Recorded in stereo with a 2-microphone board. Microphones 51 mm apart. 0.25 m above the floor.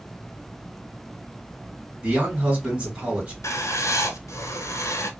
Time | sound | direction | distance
2.0 | a man speaking | 25° right (ahead or behind) | 1.7 m
3.4 | writing | 80° left | 0.5 m